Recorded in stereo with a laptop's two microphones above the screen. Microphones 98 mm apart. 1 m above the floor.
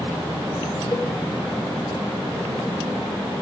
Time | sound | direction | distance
0.9 | a cowbell | 30° left (ahead or behind) | 2.5 m